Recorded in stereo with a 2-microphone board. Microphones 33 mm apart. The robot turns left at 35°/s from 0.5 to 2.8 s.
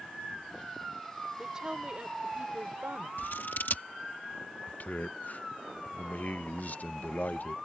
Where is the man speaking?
50° left (ahead or behind).